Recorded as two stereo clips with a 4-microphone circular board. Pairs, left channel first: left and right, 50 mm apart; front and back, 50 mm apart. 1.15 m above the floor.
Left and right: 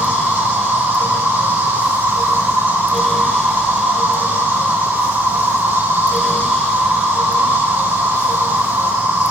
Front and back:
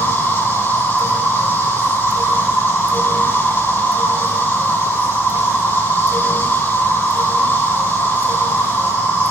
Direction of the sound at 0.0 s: 45° right.